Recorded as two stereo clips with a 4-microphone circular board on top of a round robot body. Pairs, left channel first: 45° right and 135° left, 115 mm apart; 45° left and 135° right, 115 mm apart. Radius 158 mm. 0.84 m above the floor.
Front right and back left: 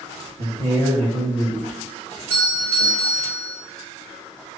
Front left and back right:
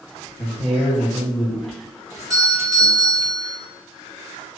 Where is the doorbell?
170° left, 1.6 m.